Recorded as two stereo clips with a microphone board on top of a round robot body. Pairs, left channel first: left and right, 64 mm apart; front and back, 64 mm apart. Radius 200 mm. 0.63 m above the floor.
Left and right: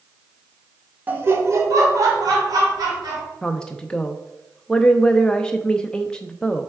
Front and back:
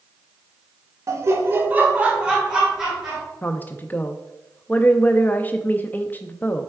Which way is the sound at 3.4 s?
25° left.